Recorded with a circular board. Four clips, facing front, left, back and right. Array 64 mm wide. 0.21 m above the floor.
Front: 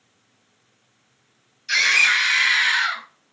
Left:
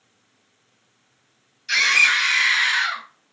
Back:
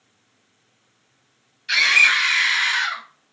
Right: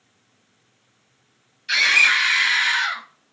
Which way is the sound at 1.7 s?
140° right.